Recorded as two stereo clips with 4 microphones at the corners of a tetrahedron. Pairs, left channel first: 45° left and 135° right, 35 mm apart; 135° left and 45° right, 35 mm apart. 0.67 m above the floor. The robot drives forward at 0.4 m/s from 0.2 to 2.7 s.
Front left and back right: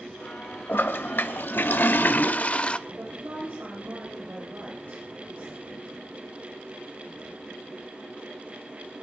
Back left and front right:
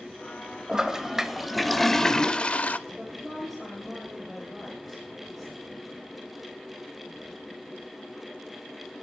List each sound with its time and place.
0.7 s a toilet flushing: 30° left, 0.9 m; by 2.8 s 95° left, 0.5 m
2.9 s a woman speaking: 135° right, 2.5 m